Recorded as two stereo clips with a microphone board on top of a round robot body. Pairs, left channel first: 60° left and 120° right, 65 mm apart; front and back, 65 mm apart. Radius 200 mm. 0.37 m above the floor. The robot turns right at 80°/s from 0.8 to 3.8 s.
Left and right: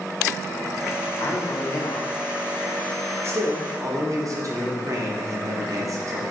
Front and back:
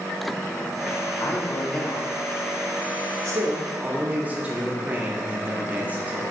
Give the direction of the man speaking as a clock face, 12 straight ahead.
11 o'clock.